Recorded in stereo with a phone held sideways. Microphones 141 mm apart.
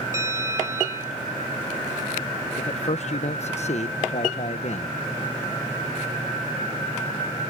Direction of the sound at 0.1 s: 20° right (ahead or behind).